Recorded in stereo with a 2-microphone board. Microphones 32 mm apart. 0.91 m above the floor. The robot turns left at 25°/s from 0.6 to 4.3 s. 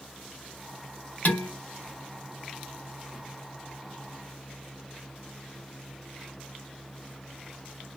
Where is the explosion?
I don't hear an explosion.